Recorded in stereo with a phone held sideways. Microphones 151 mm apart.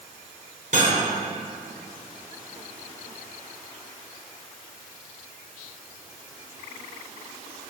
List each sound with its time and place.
0.7 s cutlery clinking: 60° right (ahead or behind), 2.5 m